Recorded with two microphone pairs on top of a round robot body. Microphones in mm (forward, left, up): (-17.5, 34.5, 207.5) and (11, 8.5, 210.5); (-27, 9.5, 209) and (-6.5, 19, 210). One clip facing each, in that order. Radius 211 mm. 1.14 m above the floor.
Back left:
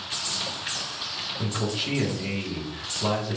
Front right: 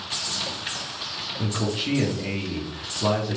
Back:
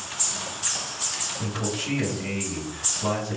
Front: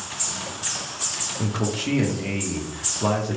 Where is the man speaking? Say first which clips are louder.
Front right 2 dB, front 3 dB; 45° left, 0.8 m.